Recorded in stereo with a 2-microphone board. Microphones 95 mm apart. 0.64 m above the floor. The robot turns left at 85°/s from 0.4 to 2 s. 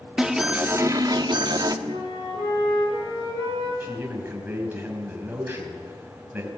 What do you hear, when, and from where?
0.2 s an alarm: 10° right, 1.1 m; by 1.8 s 125° right, 1.1 m
1.9 s a flute: 85° left, 10 m; by 3.7 s 75° left (ahead or behind), 10 m
3.8 s a man speaking: 20° right (ahead or behind), 5 m